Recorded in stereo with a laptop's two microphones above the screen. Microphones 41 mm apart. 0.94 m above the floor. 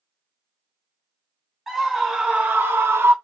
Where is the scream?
5° right (ahead or behind), 1.1 m; by 3.1 s 65° right (ahead or behind), 0.8 m.